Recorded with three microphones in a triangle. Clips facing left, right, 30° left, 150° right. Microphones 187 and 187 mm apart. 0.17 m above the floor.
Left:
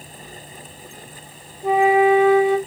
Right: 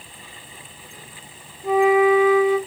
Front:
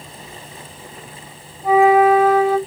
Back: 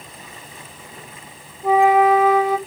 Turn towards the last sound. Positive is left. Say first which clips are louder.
# even, front 2 dB
turn(degrees=110)